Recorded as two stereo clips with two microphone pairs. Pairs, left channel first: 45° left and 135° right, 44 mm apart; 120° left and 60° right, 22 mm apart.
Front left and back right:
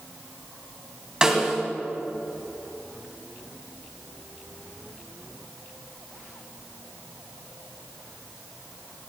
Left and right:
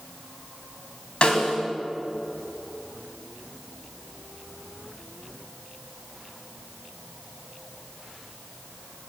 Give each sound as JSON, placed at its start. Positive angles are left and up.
{"t": 1.2, "sound": "a snare drum", "azimuth_deg": 155, "distance_m": 2.5}